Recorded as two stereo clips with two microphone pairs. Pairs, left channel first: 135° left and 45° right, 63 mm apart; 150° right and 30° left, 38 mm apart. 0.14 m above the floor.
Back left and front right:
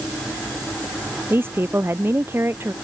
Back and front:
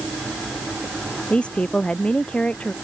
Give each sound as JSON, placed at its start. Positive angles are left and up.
{"t": 1.3, "sound": "a woman speaking", "azimuth_deg": -90}